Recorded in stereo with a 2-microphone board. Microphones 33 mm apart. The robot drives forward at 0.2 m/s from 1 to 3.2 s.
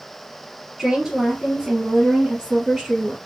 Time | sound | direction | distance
0.8 | a woman speaking | 10° right (ahead or behind) | 2.5 m